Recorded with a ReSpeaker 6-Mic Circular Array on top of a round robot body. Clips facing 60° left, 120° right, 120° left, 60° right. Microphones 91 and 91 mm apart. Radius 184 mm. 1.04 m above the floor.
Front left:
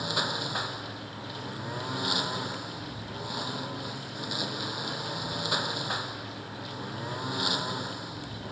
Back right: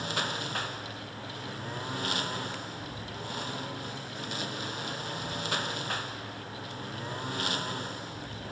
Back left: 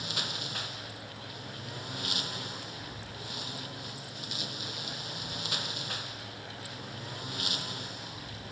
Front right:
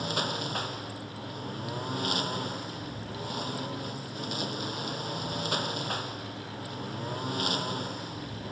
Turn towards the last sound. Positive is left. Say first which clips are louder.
# front left 2 dB, front right 8 dB
turn(degrees=-15)